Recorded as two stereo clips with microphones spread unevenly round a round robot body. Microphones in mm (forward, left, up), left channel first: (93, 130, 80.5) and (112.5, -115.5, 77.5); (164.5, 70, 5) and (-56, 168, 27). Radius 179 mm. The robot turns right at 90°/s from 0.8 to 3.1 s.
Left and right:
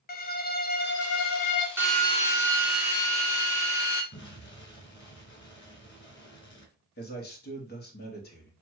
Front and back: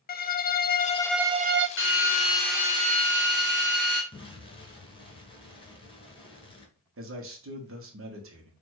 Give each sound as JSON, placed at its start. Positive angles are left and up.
{"t": 0.1, "sound": "a violin", "azimuth_deg": 35, "distance_m": 0.6}
{"t": 1.8, "sound": "a drill", "azimuth_deg": -5, "distance_m": 1.6}
{"t": 4.1, "sound": "an explosion", "azimuth_deg": 50, "distance_m": 2.0}
{"t": 7.0, "sound": "a man speaking", "azimuth_deg": 135, "distance_m": 1.3}